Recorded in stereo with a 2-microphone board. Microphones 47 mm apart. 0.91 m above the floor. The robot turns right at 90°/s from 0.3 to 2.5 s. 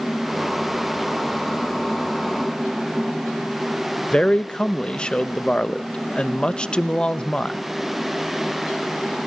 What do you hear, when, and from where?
4.1 s a man speaking: 20° left (ahead or behind), 0.7 m